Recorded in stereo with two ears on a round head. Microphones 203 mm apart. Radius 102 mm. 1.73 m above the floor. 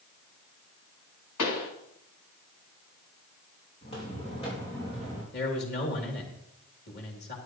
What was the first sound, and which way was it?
A pop, 80° left.